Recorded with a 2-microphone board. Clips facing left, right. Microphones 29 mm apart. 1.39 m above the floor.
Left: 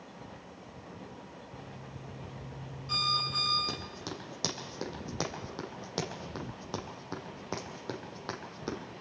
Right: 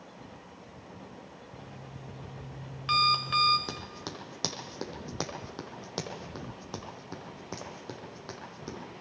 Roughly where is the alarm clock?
Right.